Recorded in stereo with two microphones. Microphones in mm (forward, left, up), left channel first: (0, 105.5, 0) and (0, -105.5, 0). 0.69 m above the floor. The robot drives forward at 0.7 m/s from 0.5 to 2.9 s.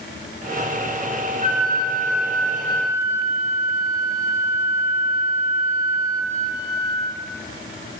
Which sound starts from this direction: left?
A flute, at 1.4 s.